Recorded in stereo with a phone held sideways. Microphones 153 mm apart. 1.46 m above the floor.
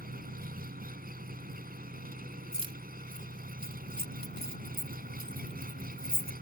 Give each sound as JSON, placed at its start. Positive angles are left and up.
{"t": 0.0, "sound": "an engine running", "side_deg": -70}
{"t": 2.5, "sound": "keys jangling", "side_deg": -35}